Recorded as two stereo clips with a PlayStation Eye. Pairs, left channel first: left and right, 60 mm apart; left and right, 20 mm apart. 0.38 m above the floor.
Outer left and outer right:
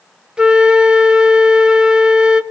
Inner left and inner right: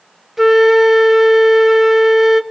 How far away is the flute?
About 0.8 m.